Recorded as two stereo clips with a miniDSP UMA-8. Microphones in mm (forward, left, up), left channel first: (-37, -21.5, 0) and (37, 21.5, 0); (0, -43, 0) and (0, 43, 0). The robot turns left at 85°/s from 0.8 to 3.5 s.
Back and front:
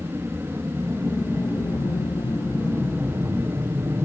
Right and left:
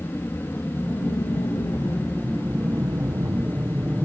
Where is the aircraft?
25° right; by 4.0 s 20° left.